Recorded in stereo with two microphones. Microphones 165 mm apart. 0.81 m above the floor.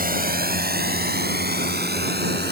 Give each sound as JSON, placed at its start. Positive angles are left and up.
{"t": 0.0, "sound": "a drone", "side_deg": -60}